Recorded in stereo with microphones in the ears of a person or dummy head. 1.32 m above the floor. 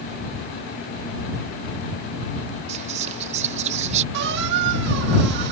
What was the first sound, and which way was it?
Whispering, 35° right (ahead or behind).